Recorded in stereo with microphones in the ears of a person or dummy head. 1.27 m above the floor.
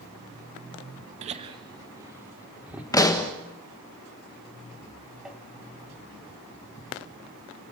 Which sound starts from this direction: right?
Laughter, at 1.2 s.